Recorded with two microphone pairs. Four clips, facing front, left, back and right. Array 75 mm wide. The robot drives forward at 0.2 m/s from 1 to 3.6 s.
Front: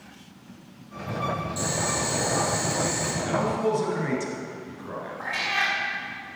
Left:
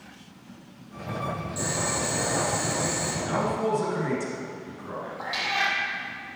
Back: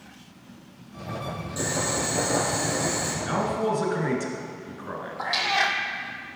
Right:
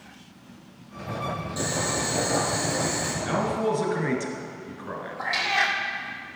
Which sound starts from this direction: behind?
A cat meowing, at 5.2 s.